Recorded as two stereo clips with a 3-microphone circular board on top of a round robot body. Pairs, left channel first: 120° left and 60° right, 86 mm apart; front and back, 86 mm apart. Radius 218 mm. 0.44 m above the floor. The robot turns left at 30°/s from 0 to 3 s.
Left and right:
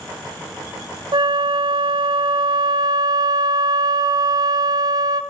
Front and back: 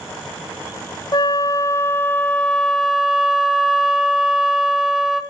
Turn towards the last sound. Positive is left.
turn(degrees=-95)